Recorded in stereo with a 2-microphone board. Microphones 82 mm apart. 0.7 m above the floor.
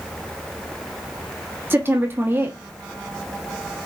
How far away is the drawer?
No drawer in this recording.